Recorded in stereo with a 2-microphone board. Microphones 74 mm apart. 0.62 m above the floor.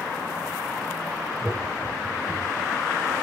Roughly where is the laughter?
Centre.